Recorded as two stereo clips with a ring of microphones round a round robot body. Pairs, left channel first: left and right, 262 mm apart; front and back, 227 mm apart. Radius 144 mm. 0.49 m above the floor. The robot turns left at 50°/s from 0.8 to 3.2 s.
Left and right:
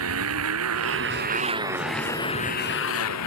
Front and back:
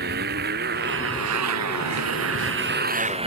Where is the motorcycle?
125° right; by 3.3 s 115° left.